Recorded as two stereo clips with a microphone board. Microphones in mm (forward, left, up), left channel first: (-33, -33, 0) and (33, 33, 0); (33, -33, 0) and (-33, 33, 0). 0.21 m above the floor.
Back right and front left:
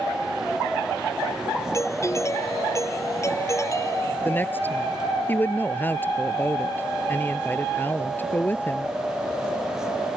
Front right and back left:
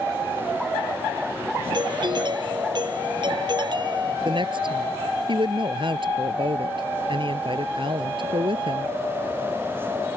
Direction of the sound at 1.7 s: 170° left.